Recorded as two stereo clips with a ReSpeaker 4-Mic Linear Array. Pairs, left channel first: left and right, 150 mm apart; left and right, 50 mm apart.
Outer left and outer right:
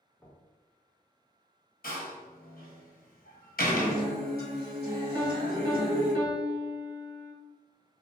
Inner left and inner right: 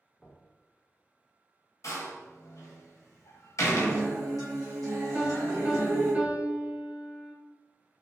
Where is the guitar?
90° right, 1.3 m.